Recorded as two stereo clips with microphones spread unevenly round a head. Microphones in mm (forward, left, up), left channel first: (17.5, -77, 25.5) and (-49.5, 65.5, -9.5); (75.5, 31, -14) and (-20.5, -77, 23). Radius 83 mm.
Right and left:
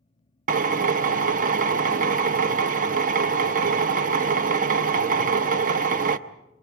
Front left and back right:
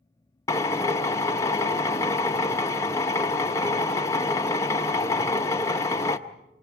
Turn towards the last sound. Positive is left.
turn(degrees=130)